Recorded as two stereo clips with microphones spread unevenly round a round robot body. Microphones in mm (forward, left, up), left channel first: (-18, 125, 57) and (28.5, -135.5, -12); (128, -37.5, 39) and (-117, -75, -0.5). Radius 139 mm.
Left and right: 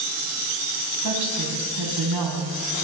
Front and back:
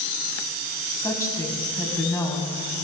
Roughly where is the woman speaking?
Right.